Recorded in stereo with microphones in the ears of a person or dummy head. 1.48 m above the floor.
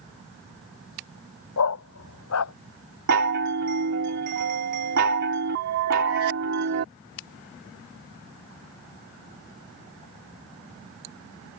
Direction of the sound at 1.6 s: 75° left (ahead or behind).